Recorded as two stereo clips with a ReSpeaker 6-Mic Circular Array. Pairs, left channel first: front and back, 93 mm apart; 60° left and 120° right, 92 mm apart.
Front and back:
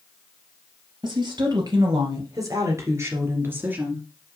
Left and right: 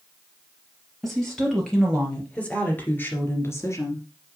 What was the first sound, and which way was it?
A woman speaking, 150° left.